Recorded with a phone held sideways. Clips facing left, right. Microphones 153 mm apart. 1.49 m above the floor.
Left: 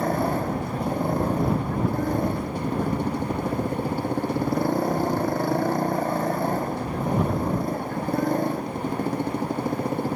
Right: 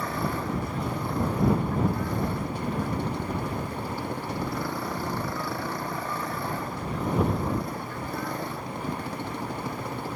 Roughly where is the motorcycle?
Left.